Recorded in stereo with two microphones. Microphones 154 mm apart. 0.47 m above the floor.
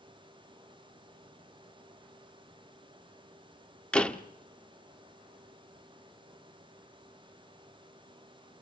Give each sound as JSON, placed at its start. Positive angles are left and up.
{"t": 3.9, "sound": "a door slam", "side_deg": 5, "distance_m": 0.8}